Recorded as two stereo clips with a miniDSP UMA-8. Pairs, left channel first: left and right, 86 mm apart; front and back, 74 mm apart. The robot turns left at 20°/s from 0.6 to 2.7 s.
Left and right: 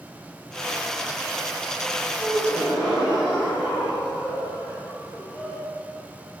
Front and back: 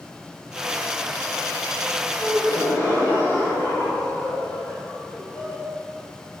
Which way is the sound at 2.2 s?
5° left.